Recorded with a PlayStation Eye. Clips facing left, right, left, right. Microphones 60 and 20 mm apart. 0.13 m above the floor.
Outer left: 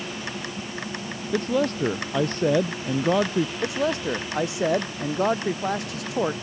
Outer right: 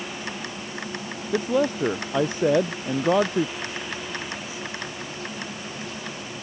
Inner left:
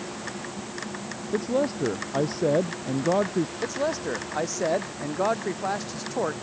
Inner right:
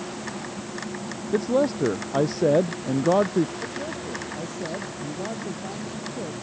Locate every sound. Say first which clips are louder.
1.3 s a man speaking: outer right 1 dB, inner right 3 dB; 10° right (ahead or behind)
3.6 s a man speaking: outer left 8 dB, inner left 4 dB; 75° left (ahead or behind)